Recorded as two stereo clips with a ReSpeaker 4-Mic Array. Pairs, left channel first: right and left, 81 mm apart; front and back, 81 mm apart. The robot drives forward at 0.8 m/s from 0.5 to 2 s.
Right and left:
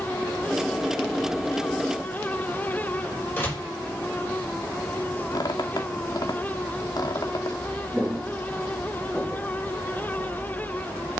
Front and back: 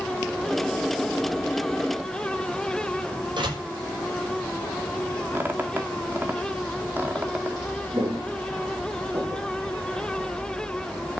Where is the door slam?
155° right, 5.5 m.